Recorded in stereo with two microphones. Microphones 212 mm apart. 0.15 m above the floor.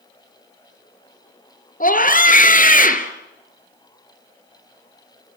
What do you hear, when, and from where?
1.8 s a scream: 45° left (ahead or behind), 2.5 m